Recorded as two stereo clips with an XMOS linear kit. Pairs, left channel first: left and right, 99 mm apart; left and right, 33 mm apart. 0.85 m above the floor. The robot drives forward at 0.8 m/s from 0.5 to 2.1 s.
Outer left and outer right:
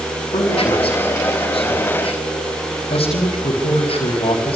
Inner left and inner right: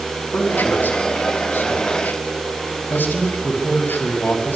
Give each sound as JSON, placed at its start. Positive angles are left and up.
{"t": 0.3, "sound": "a man speaking", "side_deg": 65, "distance_m": 6.5}